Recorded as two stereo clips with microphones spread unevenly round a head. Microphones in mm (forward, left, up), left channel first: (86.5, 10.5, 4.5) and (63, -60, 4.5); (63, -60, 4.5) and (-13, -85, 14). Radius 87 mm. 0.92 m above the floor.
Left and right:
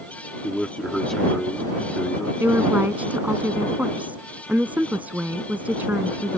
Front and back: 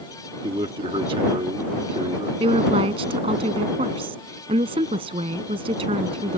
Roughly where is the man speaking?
Behind.